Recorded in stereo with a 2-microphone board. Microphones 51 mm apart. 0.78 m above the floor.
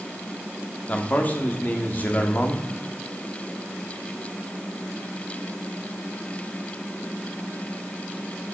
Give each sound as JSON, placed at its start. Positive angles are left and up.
{"t": 0.9, "sound": "a man speaking", "side_deg": 35, "distance_m": 1.8}